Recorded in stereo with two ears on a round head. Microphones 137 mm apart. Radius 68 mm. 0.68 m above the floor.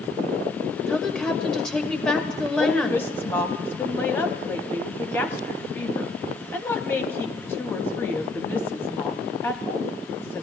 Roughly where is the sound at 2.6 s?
Centre.